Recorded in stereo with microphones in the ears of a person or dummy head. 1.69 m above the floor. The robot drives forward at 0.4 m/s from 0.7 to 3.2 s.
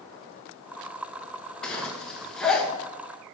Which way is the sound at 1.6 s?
5° left (ahead or behind).